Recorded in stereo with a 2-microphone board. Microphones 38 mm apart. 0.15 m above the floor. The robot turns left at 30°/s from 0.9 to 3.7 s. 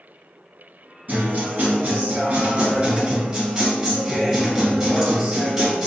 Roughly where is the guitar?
Right.